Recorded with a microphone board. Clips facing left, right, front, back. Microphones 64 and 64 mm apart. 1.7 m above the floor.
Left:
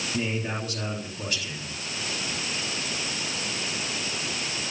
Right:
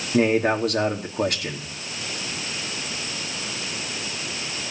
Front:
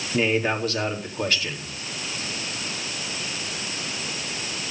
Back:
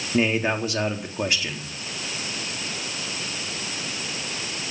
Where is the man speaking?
110° right, 4 m.